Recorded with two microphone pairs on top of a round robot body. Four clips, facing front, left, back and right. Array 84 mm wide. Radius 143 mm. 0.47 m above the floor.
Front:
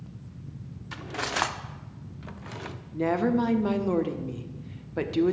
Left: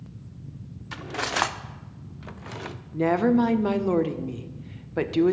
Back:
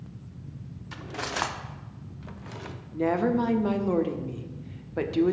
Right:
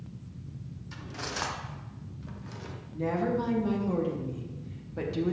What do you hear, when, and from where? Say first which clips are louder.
0.9 s cutlery clinking: left 9 dB, front 2 dB; 55° left, 0.7 m
2.9 s a woman speaking: left 8 dB, even; 65° left, 1.0 m